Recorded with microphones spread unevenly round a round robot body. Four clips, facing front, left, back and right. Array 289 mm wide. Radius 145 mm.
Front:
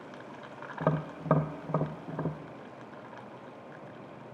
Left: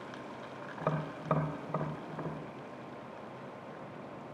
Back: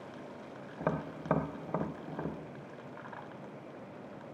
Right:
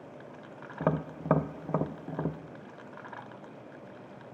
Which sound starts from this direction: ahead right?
Tapping, at 0.8 s.